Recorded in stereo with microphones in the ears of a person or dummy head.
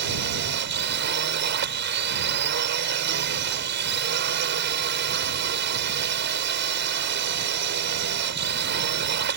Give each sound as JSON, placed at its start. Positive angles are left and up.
{"t": 0.0, "sound": "a drone", "side_deg": -55}